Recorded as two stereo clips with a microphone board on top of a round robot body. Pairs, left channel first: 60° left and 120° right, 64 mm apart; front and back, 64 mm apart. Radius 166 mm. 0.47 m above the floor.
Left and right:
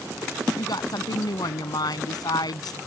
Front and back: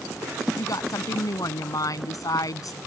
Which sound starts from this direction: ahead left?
A woman speaking, at 0.6 s.